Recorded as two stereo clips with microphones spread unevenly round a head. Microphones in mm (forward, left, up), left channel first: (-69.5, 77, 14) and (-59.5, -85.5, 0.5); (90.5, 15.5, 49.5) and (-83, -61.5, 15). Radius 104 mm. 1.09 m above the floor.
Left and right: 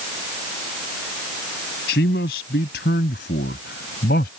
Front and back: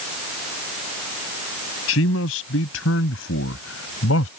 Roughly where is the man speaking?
Ahead left.